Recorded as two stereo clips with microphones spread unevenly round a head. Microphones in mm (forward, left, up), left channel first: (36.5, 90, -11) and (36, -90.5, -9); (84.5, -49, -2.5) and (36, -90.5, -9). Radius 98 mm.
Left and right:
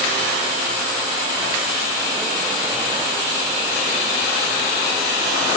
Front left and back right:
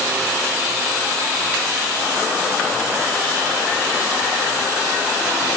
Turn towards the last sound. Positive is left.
No sound to turn to.